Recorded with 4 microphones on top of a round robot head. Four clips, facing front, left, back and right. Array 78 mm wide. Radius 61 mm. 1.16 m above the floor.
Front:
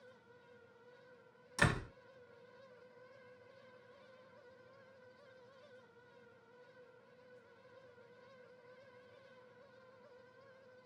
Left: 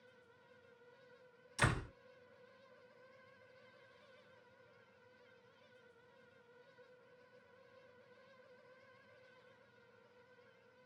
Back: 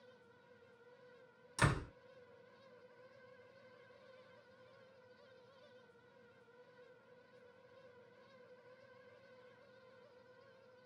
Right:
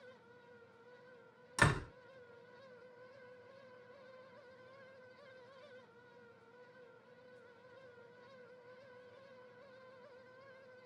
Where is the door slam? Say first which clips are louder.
Right 4 dB, front 2 dB; 80° right, 1.5 m.